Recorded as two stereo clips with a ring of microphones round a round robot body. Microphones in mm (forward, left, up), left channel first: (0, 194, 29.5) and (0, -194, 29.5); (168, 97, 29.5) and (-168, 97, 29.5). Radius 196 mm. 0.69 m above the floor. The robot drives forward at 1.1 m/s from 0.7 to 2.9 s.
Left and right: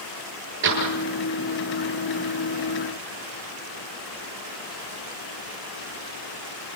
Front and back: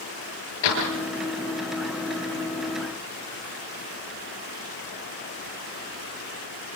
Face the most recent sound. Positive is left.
turn(degrees=-40)